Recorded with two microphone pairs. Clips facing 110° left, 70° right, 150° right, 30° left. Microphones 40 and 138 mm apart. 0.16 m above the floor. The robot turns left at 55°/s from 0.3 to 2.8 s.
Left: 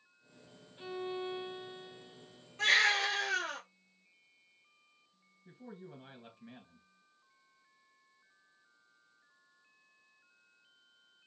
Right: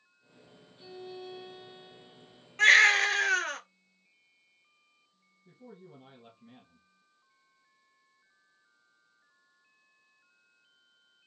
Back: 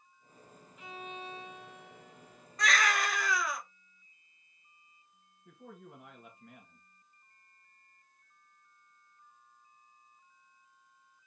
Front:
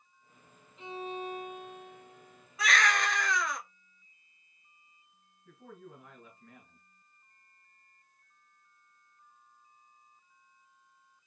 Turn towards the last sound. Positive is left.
turn(degrees=135)